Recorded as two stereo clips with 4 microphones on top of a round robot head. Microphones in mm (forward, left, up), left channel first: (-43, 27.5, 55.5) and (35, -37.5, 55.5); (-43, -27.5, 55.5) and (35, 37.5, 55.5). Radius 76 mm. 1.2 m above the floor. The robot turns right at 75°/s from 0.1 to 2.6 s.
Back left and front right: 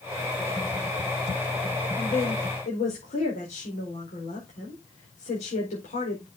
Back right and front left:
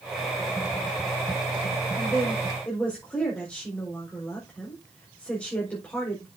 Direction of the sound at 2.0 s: 95° left.